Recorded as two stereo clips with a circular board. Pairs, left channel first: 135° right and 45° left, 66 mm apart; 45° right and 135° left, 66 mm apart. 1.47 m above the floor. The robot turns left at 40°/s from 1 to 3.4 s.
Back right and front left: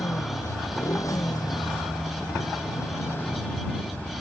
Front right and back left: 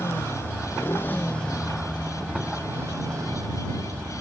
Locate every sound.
0.0 s a motorcycle: 100° right; by 4.2 s 165° left